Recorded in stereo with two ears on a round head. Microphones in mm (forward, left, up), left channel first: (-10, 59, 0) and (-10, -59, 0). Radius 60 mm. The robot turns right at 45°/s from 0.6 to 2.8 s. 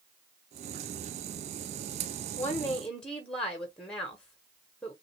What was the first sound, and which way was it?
A woman speaking, 15° left (ahead or behind).